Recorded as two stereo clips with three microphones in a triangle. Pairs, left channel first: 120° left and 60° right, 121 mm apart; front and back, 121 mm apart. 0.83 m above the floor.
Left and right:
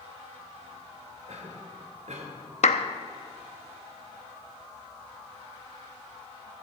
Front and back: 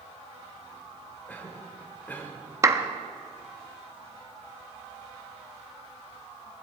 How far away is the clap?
About 0.7 m.